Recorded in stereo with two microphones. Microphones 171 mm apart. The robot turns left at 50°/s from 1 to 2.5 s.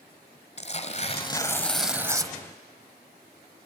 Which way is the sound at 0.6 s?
40° left.